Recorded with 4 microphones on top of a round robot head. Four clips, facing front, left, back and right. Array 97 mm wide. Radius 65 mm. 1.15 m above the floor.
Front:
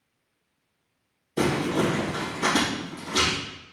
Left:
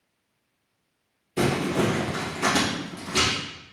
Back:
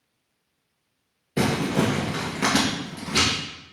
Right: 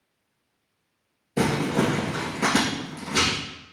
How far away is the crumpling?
About 3 m.